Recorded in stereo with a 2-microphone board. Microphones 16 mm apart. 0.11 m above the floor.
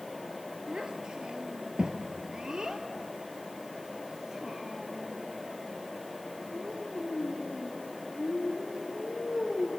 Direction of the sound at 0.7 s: 55° right (ahead or behind).